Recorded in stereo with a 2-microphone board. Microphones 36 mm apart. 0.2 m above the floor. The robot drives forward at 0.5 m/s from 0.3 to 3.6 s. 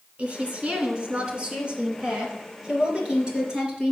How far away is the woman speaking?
About 2 m.